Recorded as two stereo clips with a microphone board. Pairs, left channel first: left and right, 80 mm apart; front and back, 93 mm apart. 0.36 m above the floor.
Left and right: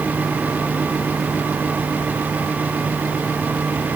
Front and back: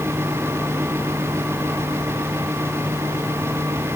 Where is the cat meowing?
No cat meowing in this recording.